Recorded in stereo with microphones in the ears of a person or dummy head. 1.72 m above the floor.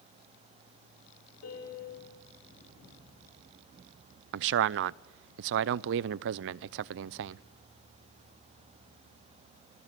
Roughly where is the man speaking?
Right.